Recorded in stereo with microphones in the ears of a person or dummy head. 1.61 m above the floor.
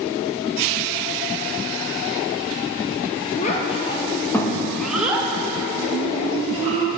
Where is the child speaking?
35° left (ahead or behind), 1.4 m; by 6.9 s 35° right (ahead or behind), 2 m.